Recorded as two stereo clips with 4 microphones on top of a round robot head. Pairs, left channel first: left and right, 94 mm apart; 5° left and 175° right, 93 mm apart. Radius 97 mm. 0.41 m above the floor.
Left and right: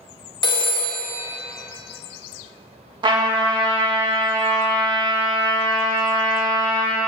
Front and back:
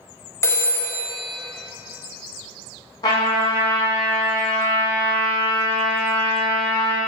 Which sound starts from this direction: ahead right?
A trumpet, at 3.0 s.